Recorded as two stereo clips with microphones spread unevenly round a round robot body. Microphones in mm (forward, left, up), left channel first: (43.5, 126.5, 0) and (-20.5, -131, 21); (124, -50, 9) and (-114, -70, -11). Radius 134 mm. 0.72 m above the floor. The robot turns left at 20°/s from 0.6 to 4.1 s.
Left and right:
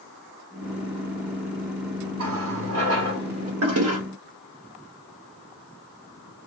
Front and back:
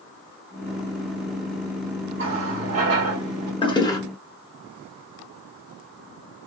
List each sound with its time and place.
2.2 s a running tap: 140° right, 1.6 m; by 3.5 s 165° right, 1.6 m
3.6 s a toilet flushing: 65° right, 1.0 m; by 4.0 s 75° right, 1.0 m